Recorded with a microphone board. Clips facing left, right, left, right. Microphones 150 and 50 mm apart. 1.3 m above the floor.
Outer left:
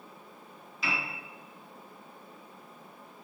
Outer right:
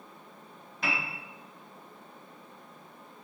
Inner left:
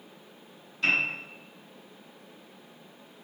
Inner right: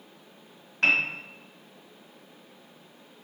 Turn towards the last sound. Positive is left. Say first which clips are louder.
# outer right 1 dB, inner right 3 dB
turn(degrees=-55)  # may be behind; listen again after turning